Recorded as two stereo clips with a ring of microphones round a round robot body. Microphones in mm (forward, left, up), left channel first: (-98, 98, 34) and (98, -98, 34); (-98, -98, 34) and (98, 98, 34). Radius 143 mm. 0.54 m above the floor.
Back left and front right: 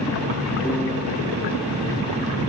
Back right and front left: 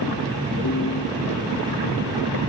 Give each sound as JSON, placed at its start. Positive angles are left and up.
{"t": 0.6, "sound": "a piano", "azimuth_deg": -145, "distance_m": 0.9}